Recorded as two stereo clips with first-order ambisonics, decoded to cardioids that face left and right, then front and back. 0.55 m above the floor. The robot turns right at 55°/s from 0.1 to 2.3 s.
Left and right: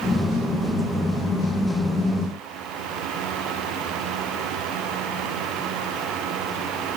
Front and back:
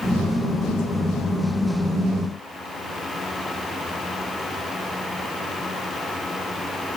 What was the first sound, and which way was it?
Only background noise.